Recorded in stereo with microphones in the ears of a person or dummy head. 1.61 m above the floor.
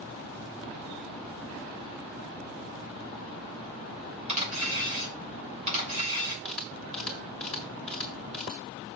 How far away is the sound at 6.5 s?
About 0.9 m.